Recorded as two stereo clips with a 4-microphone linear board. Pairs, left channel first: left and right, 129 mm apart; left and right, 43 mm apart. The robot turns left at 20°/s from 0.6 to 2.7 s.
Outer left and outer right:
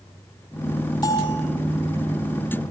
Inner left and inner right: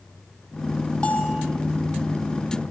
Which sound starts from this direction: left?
A bell, at 1.0 s.